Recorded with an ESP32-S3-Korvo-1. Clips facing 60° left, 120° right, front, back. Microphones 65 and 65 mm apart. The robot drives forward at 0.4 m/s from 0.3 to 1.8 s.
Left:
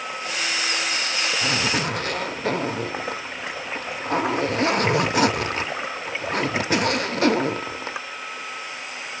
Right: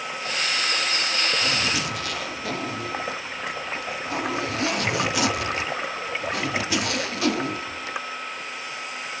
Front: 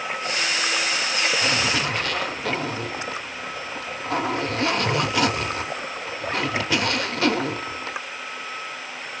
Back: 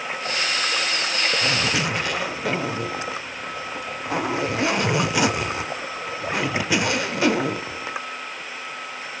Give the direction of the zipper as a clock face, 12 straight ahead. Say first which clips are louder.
Left 2 dB, even; 9 o'clock.